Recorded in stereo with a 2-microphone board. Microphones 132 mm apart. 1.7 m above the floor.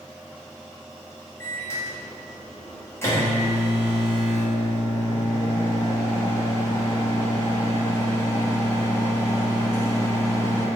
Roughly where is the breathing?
I don't hear breathing.